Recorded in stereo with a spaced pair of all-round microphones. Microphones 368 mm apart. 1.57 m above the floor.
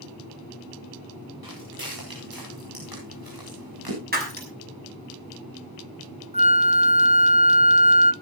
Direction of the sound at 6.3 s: 20° right (ahead or behind).